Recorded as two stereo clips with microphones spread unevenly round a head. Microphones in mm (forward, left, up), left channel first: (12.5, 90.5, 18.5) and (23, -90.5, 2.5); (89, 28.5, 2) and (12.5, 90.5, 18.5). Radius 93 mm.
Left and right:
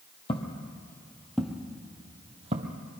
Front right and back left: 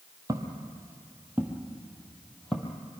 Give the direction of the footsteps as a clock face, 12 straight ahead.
8 o'clock.